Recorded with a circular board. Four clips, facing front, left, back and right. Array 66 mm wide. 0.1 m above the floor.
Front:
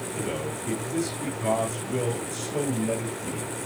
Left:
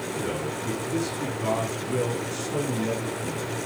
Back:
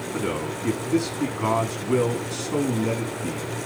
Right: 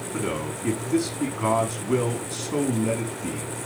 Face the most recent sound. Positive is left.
turn(degrees=-145)